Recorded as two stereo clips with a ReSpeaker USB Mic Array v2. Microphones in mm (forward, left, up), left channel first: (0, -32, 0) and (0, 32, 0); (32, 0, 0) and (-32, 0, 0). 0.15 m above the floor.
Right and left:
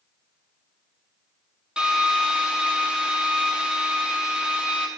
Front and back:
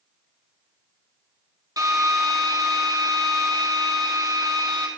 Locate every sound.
1.8 s a drill: 165° left, 1.8 m